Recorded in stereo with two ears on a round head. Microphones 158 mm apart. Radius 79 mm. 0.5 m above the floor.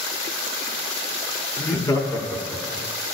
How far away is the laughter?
About 0.9 m.